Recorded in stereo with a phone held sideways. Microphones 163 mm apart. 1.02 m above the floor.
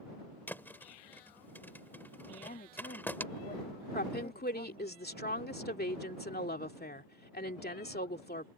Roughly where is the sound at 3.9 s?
Left.